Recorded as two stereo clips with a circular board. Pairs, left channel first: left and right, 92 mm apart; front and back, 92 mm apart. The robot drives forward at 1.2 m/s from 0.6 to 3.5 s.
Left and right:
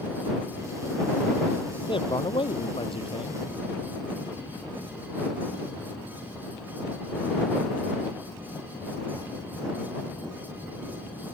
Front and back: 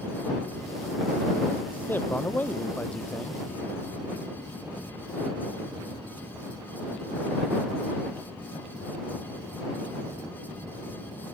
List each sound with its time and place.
1.9 s a man speaking: 70° left; by 3.4 s 85° left